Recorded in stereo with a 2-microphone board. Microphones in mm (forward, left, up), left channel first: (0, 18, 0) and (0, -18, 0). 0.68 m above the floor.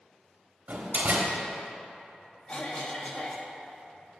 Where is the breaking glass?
I don't hear breaking glass.